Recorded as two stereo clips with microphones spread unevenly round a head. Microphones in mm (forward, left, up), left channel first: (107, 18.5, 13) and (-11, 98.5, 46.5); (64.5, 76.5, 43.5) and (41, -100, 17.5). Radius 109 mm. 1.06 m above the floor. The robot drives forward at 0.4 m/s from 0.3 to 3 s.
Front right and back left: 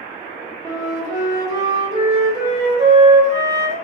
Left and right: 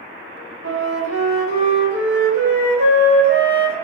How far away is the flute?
About 1.0 m.